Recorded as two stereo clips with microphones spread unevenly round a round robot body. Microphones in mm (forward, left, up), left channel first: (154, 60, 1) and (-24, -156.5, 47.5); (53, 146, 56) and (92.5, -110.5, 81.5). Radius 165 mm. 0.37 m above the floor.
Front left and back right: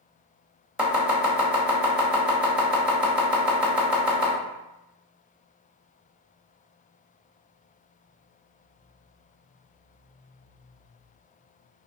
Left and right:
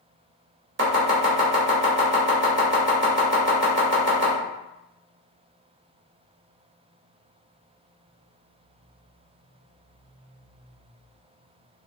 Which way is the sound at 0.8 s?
40° right.